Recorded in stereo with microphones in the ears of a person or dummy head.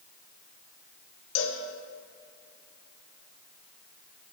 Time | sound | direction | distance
1.4 | a cowbell | 80° left | 2 m